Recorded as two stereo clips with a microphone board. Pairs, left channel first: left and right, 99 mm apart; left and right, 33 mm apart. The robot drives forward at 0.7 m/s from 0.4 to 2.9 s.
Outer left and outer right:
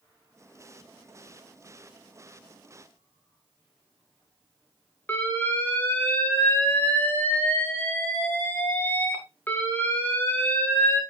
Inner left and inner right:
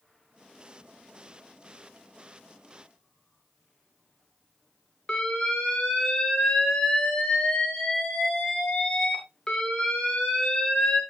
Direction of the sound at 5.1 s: 20° left (ahead or behind).